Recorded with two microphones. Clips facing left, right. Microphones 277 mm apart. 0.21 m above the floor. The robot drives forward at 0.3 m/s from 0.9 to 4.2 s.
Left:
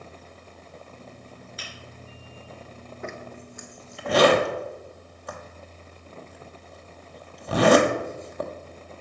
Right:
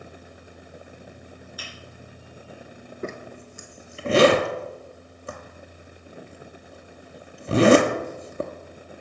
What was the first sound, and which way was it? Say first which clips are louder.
A finger snap: right 1 dB; 25° left (ahead or behind).